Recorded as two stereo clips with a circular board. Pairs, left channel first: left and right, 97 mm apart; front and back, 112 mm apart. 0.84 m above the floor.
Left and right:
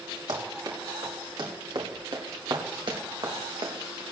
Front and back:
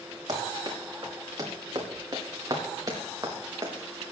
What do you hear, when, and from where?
0.3 s running footsteps: 130° right, 5.5 m; by 4.0 s 125° right, 3.5 m